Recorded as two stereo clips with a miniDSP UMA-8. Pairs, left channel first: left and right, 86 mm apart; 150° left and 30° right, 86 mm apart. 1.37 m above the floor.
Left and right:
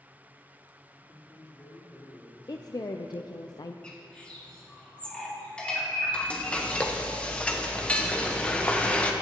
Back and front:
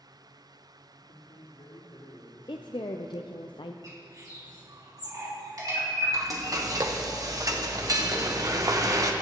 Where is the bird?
10° left, 2.5 m.